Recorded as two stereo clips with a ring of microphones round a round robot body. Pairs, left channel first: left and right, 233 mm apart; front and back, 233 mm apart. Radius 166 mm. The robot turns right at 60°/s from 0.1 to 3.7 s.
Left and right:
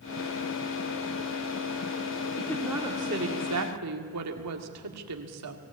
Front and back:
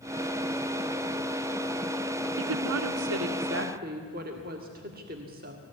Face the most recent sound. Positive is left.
turn(degrees=-115)